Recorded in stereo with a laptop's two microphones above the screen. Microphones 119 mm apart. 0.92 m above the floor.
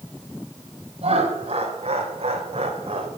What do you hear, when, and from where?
1.0 s laughter: 55° right (ahead or behind), 4 m